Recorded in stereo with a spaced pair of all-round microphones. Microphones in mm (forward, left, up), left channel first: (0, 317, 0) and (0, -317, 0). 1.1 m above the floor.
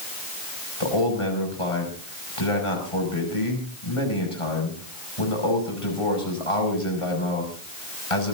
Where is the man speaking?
55° left (ahead or behind), 6 m.